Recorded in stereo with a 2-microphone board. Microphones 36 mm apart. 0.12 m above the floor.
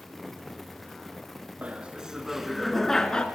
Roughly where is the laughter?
Right.